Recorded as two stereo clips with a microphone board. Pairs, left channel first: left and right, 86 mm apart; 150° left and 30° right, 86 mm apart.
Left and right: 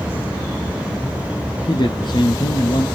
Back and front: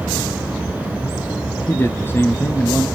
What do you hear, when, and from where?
1.7 s a man speaking: 90° left, 2.5 m